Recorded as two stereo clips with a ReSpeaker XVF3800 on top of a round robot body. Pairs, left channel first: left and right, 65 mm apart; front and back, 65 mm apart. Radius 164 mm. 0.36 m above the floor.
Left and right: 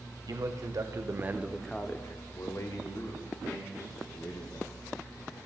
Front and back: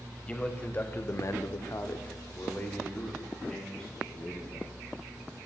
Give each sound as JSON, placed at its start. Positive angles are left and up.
{"t": 0.3, "sound": "a man speaking", "azimuth_deg": -70, "distance_m": 2.5}